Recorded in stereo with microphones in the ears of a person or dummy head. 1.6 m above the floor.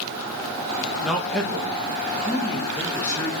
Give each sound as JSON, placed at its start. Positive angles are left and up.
{"t": 1.0, "sound": "a man speaking", "side_deg": 0, "distance_m": 1.7}